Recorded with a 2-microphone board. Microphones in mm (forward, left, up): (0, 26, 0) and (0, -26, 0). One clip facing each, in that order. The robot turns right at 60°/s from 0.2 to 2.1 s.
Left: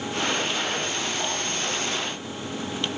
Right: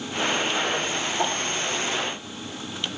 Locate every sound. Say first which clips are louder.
1.2 s a whoosh: right 3 dB; 35° right (ahead or behind), 3.5 m; by 1.4 s 20° right (ahead or behind), 3.5 m